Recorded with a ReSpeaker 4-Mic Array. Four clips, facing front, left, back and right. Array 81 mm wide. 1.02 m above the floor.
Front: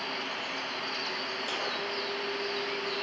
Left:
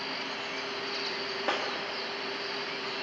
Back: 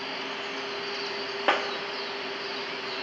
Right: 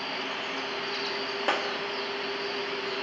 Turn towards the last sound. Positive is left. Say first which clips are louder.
# right 3 dB, back 12 dB
turn(degrees=-165)